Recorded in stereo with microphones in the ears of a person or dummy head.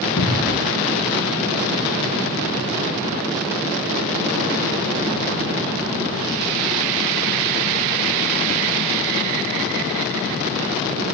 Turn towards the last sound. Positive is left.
turn(degrees=60)  # may be behind; listen again after turning